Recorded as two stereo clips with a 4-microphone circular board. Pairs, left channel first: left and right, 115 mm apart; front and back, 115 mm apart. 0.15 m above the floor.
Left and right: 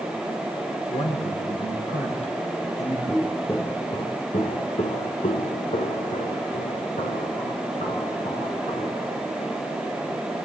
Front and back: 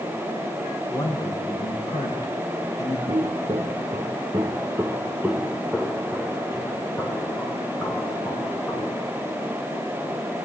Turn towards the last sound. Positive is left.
turn(degrees=70)